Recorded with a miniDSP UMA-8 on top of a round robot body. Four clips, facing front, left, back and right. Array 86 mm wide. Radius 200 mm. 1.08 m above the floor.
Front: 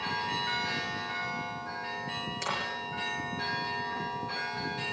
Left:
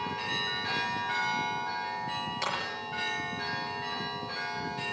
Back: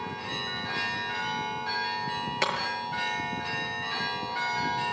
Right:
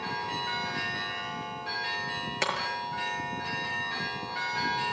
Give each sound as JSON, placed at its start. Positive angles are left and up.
{"t": 2.4, "sound": "breaking glass", "azimuth_deg": -145, "distance_m": 6.0}